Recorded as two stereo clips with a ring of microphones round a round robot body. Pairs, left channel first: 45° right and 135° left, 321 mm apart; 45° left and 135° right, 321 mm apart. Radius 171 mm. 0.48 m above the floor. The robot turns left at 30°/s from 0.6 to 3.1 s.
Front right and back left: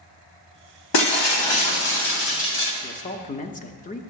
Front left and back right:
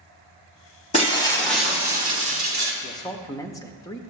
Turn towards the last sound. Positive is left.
turn(degrees=-20)